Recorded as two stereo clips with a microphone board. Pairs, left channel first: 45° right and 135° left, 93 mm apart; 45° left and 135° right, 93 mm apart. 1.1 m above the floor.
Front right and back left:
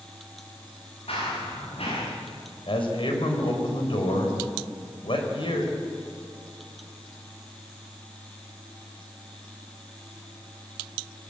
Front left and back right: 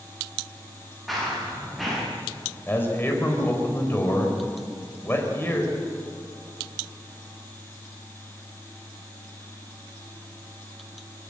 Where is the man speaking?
20° right, 4.5 m.